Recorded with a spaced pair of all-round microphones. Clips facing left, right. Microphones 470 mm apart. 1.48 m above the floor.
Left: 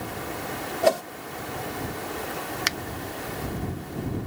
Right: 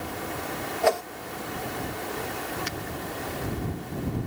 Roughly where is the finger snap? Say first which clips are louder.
Even; left.